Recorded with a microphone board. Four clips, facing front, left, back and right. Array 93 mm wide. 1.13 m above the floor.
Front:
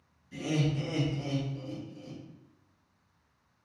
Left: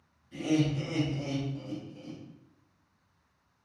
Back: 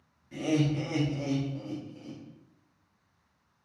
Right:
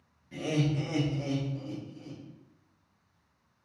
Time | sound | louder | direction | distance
0.3 | laughter | left 2 dB, back 4 dB | 140° right | 1.1 m